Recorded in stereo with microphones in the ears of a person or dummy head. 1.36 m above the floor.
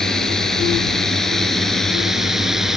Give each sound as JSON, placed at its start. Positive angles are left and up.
{"t": 0.0, "sound": "a drone", "side_deg": 5}